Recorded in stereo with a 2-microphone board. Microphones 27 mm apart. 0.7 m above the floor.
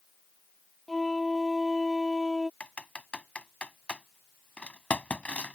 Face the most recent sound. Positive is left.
turn(degrees=45)  # may be behind; listen again after turning